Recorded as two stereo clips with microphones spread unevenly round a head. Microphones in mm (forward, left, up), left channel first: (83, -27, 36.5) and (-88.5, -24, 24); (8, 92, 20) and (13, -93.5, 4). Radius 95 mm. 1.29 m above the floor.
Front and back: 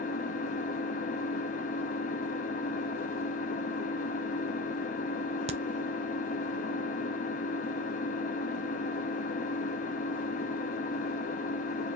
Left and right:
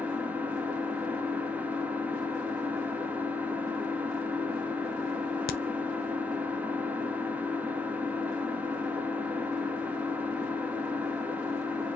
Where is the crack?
130° left, 0.5 m.